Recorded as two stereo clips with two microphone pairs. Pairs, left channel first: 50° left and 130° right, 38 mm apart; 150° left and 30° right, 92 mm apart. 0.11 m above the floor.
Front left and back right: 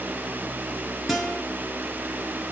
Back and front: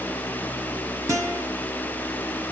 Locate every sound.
1.1 s a guitar: 45° right, 1.3 m